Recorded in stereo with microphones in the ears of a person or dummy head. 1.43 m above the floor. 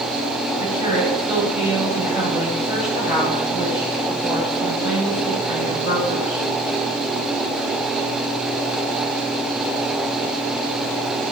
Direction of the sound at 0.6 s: 35° left (ahead or behind).